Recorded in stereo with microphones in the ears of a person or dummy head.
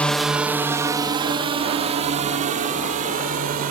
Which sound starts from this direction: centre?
A drone, at 0.0 s.